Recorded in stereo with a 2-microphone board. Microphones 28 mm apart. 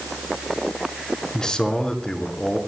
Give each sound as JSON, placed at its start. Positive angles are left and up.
{"t": 1.3, "sound": "a man speaking", "side_deg": 25, "distance_m": 4.5}